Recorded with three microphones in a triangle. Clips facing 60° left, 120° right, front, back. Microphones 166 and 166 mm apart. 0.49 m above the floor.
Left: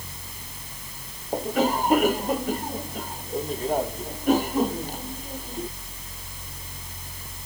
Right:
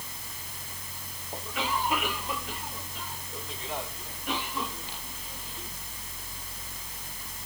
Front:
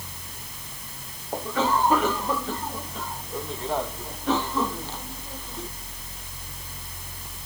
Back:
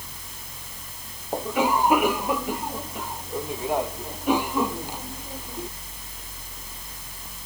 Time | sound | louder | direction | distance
1.3 | a cough | left 10 dB, back 2 dB | 105° left | ?